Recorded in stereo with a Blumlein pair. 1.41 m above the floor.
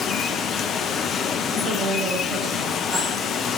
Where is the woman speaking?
35° right, 8 m.